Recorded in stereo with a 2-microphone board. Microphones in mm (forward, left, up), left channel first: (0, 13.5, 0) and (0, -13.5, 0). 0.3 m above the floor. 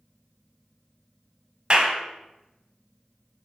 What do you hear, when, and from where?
1.7 s a clap: 35° right (ahead or behind), 1.0 m